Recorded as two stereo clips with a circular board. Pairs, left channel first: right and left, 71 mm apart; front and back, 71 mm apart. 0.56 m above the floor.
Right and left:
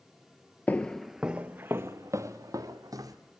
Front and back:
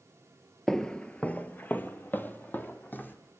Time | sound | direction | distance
0.7 | footsteps | 75° right | 0.5 m